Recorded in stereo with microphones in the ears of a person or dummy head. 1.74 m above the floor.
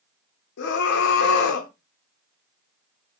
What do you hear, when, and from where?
0.6 s a scream: 60° left (ahead or behind), 0.6 m